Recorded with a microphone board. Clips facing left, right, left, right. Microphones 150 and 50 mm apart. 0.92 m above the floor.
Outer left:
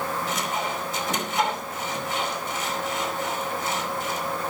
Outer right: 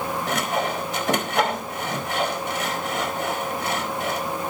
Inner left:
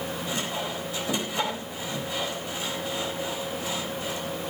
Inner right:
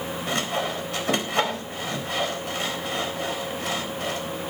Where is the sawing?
75° right (ahead or behind), 4 m.